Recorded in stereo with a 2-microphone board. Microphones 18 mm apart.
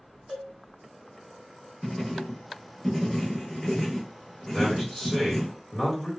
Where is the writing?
10° left (ahead or behind), 0.7 m.